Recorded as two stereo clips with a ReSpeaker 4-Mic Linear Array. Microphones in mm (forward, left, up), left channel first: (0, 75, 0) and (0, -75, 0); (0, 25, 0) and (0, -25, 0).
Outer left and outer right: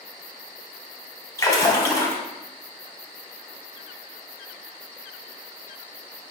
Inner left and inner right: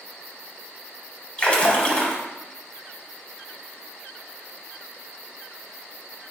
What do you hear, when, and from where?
1.4 s a splash: 20° left (ahead or behind), 1.0 m